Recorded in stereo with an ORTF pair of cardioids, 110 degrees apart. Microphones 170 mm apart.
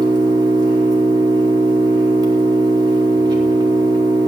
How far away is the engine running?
About 4 m.